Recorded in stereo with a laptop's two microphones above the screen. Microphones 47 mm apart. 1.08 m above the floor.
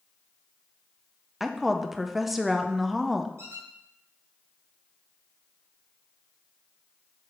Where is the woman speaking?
5° right (ahead or behind), 0.7 m.